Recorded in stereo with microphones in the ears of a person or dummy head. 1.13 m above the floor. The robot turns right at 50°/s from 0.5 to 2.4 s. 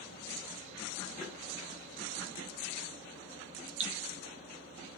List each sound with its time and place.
1.2 s tapping: centre (ahead or behind), 1.3 m; by 1.4 s 10° right (ahead or behind), 1.3 m
3.8 s dripping: 40° right (ahead or behind), 1.1 m